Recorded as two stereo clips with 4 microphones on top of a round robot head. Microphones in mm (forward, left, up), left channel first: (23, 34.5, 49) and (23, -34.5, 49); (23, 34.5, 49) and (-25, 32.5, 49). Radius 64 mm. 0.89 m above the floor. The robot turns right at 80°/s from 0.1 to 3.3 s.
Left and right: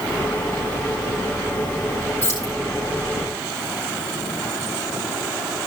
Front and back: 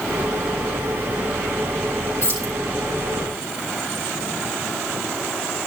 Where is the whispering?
No whispering in this recording.